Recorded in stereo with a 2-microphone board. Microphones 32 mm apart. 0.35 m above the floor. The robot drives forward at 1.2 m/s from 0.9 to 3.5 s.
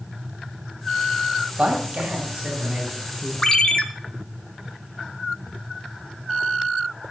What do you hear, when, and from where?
1.6 s a man speaking: 45° right (ahead or behind), 2 m; by 3.3 s 25° right (ahead or behind), 3.5 m
3.4 s a ringtone: 20° left (ahead or behind), 0.6 m